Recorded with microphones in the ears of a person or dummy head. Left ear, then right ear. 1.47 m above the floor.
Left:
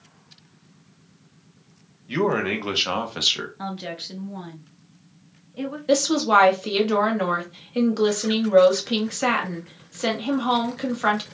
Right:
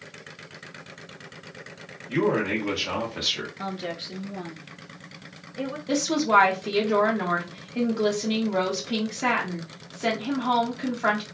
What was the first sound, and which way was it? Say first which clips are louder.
A man speaking: left 1 dB; 65° left (ahead or behind).